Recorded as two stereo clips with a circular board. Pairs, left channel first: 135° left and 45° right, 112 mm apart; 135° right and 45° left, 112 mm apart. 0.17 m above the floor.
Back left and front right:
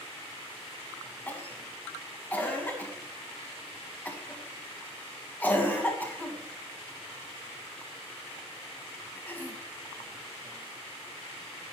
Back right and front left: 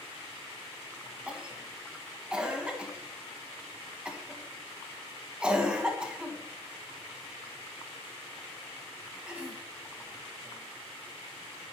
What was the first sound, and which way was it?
A cough, 105° left.